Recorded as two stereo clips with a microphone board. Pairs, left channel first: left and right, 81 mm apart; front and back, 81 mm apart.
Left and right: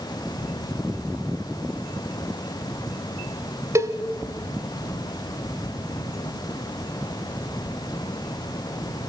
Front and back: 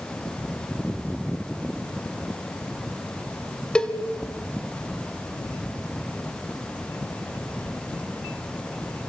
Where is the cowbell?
70° right, 1.2 m.